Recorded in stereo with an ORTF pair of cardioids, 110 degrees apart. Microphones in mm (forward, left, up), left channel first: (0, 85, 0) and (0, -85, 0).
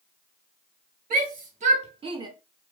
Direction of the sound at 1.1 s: 55° right.